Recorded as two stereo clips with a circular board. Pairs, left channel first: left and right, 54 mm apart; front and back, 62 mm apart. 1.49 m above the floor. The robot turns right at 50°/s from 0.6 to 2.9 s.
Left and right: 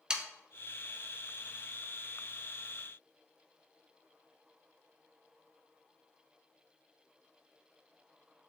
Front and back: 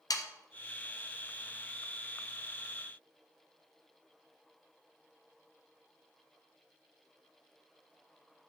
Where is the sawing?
15° right, 0.6 m.